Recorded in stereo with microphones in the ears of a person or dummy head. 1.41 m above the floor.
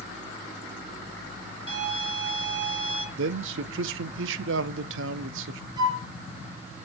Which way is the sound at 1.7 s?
40° right (ahead or behind).